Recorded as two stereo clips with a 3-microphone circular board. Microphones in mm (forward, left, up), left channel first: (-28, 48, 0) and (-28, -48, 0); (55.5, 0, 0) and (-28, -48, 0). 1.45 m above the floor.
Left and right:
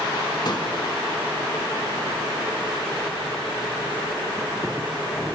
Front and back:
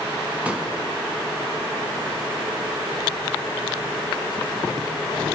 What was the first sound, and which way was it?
A pop, 135° left.